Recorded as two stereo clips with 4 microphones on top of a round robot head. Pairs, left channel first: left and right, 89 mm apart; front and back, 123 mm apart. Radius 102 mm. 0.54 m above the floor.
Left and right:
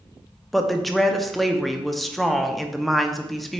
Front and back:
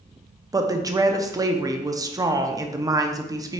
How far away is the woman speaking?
About 0.7 m.